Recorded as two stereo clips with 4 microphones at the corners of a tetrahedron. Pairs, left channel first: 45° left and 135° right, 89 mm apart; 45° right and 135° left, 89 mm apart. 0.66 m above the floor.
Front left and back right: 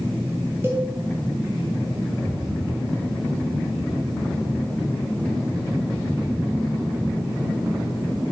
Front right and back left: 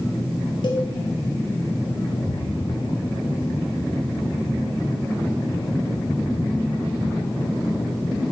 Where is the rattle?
40° right, 1.7 m.